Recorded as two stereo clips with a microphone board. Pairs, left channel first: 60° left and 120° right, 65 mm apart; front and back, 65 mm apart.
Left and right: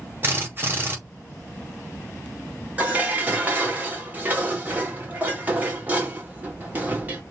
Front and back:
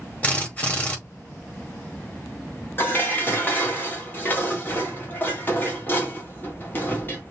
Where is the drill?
65° right, 4.5 m.